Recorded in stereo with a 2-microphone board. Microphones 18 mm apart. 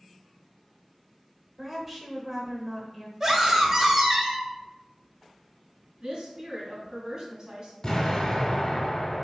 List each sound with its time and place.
1.6 s a woman speaking: 5° right (ahead or behind), 0.9 m
3.2 s a scream: 25° right (ahead or behind), 1.2 m
6.0 s a woman speaking: 40° right (ahead or behind), 1.6 m
7.8 s an explosion: 35° left (ahead or behind), 1.2 m